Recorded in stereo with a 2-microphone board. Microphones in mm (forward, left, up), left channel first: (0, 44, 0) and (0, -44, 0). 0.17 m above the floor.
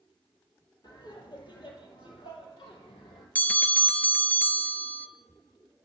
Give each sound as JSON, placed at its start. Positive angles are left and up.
{"t": 0.8, "sound": "laughter", "side_deg": 55, "distance_m": 4.0}
{"t": 3.4, "sound": "a bell", "side_deg": 20, "distance_m": 0.8}